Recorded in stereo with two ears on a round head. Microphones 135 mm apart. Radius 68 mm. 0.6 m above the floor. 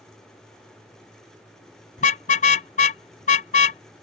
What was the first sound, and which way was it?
A car horn, 50° left (ahead or behind).